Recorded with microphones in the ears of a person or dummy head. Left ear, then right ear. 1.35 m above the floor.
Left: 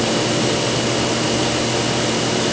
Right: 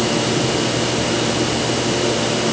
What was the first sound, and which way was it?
Only background noise.